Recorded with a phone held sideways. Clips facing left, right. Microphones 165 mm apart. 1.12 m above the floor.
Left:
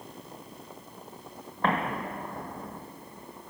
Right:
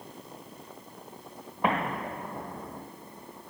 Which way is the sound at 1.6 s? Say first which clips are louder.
Even; 10° right (ahead or behind).